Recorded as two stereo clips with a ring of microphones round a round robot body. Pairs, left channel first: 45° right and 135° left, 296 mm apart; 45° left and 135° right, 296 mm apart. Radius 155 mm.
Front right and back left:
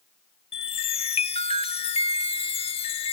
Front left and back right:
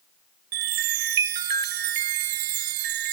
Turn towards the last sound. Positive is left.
turn(degrees=-115)